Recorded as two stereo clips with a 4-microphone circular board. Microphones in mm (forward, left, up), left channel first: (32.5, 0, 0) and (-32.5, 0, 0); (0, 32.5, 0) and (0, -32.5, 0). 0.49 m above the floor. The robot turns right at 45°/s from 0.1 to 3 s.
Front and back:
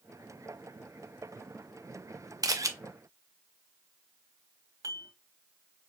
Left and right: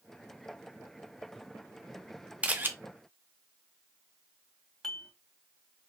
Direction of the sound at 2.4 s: 160° right.